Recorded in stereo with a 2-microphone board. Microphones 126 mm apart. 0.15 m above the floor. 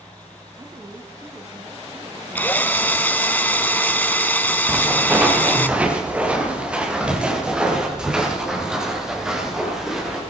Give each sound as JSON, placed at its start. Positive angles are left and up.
{"t": 0.6, "sound": "a woman speaking", "side_deg": -30, "distance_m": 1.4}
{"t": 2.4, "sound": "a drill", "side_deg": 15, "distance_m": 0.6}
{"t": 4.7, "sound": "footsteps", "side_deg": -15, "distance_m": 4.0}